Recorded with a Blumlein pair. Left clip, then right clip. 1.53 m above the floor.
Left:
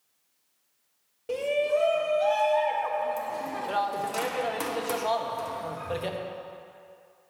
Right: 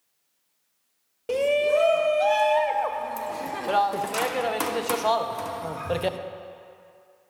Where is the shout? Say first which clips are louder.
Right 4 dB; 20° right, 0.5 m.